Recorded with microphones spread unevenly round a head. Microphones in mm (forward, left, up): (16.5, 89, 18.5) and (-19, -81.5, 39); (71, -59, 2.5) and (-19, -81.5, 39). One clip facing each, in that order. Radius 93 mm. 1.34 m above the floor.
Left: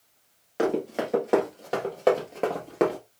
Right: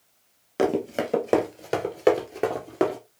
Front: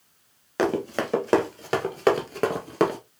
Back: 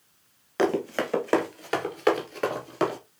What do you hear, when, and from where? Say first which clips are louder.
0.6 s running footsteps: right 2 dB, even; 75° right, 2.0 m; by 3.0 s 25° right, 1.7 m